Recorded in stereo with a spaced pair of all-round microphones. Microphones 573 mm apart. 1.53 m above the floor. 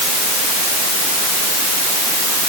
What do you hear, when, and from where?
Only background noise.